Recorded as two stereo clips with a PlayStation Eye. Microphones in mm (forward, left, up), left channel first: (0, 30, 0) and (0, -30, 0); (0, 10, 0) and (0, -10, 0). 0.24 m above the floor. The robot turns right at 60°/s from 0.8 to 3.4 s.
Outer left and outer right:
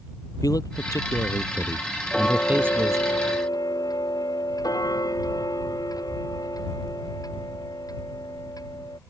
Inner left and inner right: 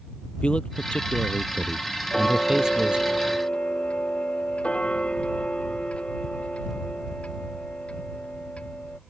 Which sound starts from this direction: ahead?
Ticking, at 2.1 s.